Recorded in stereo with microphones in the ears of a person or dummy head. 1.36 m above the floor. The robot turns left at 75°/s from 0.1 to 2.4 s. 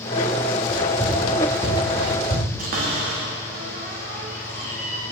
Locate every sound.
0.7 s running footsteps: 25° left (ahead or behind), 1.9 m; by 2.5 s 65° right (ahead or behind), 3 m
2.6 s a cupboard door: 45° right (ahead or behind), 1.2 m